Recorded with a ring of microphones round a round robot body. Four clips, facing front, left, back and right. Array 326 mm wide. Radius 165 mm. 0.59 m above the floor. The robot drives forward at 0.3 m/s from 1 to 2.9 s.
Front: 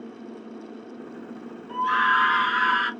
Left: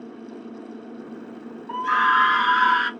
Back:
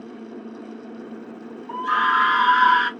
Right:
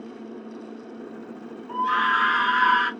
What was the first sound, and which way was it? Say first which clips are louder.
A scream: left 2 dB, back 1 dB; 140° left.